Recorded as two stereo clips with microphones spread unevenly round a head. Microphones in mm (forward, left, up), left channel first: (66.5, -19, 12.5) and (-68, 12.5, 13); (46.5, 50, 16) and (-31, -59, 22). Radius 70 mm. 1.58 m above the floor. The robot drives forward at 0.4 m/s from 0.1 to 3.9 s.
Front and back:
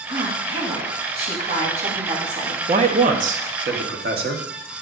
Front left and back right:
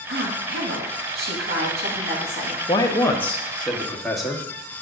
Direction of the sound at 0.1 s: 135° right.